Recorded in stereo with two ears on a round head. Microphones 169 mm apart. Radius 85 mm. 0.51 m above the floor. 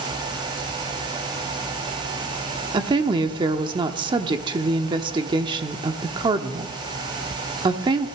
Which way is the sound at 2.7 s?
25° right (ahead or behind).